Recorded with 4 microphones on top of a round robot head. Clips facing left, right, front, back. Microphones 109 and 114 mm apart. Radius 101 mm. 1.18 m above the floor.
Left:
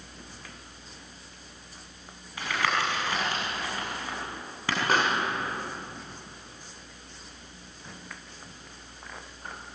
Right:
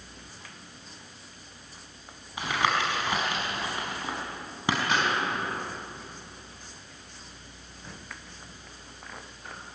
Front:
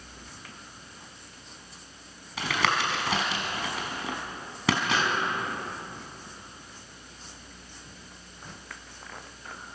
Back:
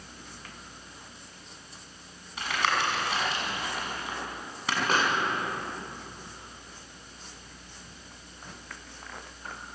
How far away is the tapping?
About 5.5 m.